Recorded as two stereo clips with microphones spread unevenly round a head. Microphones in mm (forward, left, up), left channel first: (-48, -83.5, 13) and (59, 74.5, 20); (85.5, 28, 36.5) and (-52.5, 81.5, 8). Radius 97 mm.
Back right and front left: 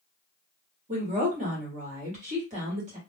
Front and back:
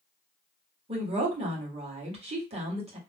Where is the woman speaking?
110° left, 1.7 m.